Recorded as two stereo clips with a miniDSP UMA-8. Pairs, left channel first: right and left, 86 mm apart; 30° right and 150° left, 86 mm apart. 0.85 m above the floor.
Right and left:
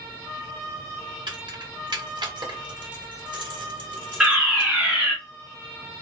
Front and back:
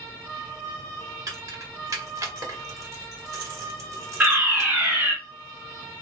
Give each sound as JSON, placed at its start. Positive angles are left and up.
{"t": 1.3, "sound": "keys jangling", "azimuth_deg": 105, "distance_m": 1.4}
{"t": 4.2, "sound": "a fire alarm", "azimuth_deg": 155, "distance_m": 1.6}